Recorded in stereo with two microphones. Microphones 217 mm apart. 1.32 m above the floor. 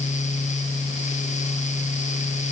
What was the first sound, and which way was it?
Only background noise.